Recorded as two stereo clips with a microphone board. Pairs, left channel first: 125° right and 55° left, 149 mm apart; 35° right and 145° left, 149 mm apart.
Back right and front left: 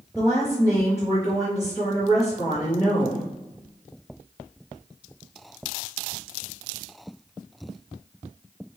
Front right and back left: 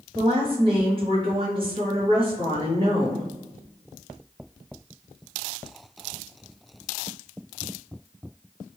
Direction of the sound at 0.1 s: 110° left.